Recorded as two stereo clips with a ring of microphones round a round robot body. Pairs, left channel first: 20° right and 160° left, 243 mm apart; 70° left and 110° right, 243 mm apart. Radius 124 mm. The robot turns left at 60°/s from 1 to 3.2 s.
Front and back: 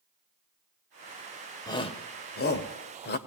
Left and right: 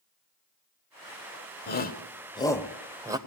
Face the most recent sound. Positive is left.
turn(degrees=-45)